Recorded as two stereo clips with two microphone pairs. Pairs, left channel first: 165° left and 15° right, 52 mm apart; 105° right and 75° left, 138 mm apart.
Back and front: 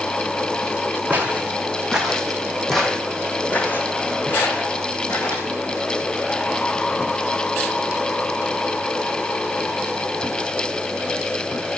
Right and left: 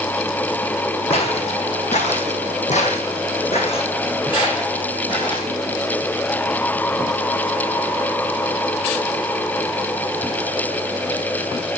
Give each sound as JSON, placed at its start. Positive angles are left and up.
{"t": 1.1, "sound": "footsteps", "azimuth_deg": -70, "distance_m": 1.7}